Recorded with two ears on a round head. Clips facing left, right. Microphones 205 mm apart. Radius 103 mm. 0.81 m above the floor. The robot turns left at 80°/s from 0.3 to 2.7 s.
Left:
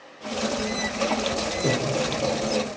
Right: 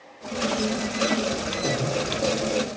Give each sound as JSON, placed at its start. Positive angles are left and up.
{"t": 1.6, "sound": "breathing", "side_deg": 30, "distance_m": 6.5}